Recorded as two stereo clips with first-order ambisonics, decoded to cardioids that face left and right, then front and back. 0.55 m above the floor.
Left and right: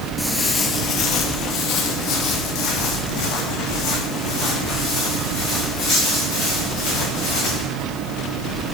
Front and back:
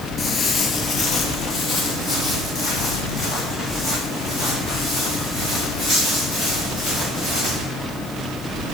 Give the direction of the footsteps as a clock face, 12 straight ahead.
12 o'clock.